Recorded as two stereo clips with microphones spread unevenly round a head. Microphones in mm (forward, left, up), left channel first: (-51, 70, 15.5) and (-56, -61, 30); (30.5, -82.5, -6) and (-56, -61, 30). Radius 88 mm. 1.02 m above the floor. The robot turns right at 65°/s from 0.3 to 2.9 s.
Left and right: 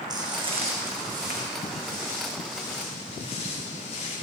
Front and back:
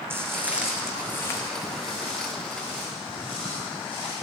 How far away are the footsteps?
About 2.5 m.